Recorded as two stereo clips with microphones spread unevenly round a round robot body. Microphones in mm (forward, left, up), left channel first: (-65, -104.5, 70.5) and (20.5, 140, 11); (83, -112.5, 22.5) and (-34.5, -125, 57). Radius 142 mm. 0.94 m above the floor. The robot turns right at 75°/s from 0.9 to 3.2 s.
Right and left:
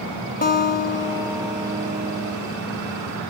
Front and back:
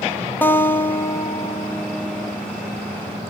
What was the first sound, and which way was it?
A guitar, 45° right.